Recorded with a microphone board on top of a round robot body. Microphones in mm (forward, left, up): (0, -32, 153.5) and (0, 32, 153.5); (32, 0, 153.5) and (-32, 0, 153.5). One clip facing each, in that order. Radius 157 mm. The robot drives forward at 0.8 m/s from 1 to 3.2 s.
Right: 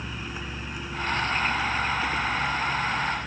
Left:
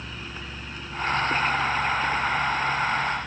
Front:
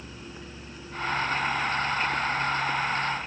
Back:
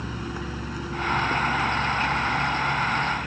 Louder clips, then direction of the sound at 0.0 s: Right 2 dB, back 10 dB; 170° right.